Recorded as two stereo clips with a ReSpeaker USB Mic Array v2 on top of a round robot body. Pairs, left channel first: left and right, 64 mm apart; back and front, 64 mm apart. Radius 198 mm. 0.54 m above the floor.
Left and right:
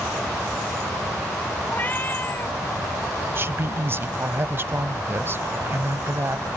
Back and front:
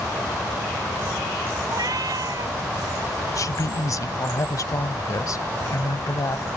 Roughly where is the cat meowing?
Ahead left.